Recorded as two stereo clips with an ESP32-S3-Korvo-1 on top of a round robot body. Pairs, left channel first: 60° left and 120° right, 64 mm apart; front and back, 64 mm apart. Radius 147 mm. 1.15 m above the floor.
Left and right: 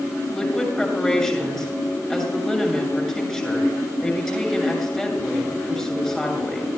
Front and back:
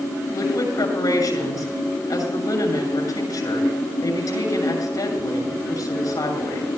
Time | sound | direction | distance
0.3 | a woman speaking | 25° right | 7 m